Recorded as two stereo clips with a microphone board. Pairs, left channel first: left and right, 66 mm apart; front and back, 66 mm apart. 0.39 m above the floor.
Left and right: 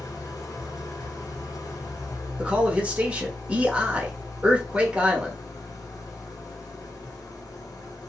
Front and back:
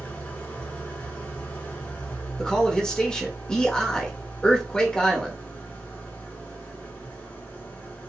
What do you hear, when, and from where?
0.0 s an engine running: 70° left, 0.9 m
2.4 s a man speaking: 60° right, 0.8 m